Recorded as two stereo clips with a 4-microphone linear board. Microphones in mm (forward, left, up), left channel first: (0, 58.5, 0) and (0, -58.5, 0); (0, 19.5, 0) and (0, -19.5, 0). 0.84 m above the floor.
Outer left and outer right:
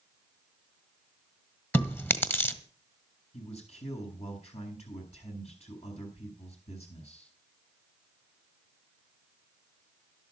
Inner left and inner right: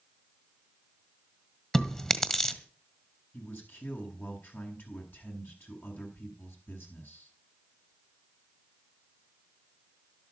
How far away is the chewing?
About 1.9 m.